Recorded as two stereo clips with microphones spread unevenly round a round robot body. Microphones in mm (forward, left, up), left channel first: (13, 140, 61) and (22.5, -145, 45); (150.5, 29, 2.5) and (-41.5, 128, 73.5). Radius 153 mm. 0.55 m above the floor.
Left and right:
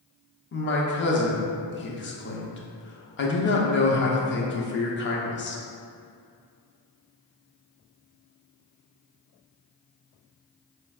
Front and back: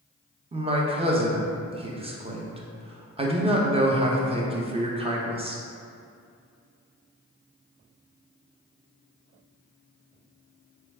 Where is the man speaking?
75° left, 0.7 m.